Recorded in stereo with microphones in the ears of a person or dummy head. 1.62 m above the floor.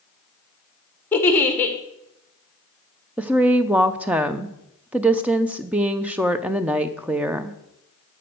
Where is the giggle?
10° left (ahead or behind), 1.4 m.